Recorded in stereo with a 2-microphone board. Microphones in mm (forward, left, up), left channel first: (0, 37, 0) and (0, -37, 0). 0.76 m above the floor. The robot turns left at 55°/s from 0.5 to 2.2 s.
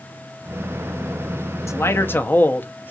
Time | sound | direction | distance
1.7 | a man speaking | 45° left (ahead or behind) | 0.7 m